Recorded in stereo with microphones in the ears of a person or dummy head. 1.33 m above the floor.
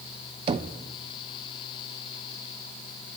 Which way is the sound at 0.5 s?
30° right (ahead or behind).